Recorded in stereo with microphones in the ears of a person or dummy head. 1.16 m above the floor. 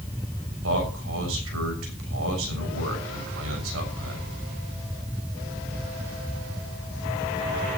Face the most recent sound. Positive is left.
turn(degrees=-85)